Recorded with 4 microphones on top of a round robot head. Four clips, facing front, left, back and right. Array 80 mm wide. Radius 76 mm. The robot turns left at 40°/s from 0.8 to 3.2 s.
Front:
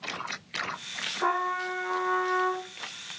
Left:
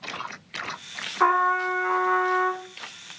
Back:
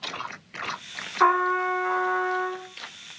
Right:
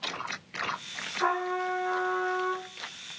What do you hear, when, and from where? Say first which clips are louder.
1.2 s a trumpet: left 8 dB, back 7 dB; 140° left, 1.6 m; by 2.6 s 85° left, 1.6 m